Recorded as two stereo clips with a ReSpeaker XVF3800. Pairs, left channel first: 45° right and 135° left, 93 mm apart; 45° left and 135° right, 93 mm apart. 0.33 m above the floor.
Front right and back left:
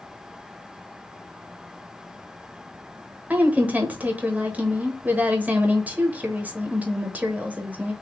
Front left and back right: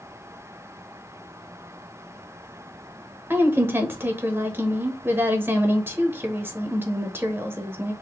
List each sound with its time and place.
3.3 s a woman speaking: 170° right, 0.9 m